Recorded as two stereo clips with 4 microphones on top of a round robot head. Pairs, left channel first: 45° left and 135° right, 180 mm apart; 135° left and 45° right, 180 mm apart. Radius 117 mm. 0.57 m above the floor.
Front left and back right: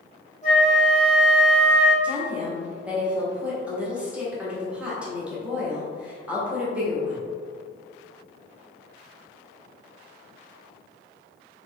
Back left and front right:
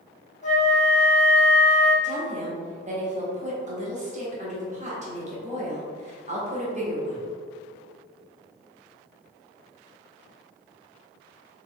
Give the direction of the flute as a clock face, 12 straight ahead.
9 o'clock.